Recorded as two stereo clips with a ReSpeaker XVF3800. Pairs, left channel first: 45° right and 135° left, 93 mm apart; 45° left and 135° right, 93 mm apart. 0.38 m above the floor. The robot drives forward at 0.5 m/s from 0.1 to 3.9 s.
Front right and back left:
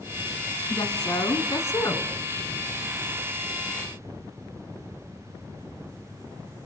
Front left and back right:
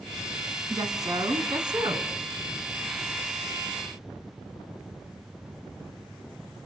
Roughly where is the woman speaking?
Right.